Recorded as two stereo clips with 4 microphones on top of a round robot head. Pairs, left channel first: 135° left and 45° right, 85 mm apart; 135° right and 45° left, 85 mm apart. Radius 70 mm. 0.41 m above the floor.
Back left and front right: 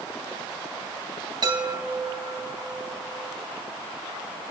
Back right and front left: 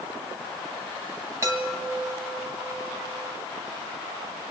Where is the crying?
No crying in this recording.